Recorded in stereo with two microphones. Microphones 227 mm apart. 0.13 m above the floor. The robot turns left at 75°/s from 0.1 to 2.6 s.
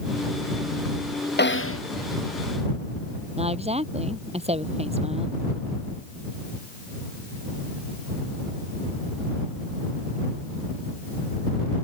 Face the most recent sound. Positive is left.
turn(degrees=-25)  # may be behind; listen again after turning